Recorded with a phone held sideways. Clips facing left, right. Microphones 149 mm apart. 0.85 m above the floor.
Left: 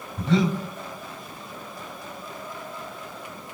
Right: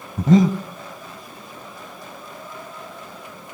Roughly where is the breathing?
Right.